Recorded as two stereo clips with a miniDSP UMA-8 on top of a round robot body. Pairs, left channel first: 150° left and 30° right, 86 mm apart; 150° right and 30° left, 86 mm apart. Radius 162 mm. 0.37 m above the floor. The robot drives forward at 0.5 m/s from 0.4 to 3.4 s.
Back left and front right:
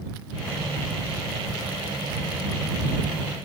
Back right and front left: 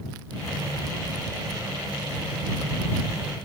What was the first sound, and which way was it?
Only background noise.